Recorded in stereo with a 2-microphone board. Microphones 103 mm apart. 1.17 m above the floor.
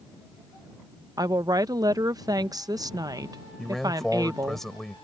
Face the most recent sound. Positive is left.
turn(degrees=5)  # may be behind; listen again after turning